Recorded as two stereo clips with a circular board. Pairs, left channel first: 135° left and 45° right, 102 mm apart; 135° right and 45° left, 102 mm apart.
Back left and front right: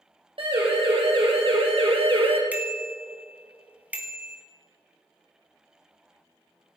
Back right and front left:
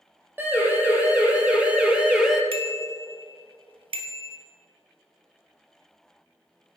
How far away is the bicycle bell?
About 2 m.